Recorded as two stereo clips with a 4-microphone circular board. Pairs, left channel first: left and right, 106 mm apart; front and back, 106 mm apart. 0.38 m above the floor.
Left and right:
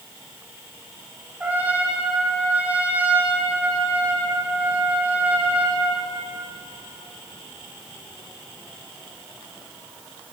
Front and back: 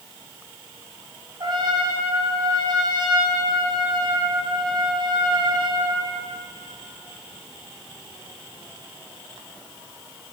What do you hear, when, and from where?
1.4 s a trumpet: 160° right, 2.0 m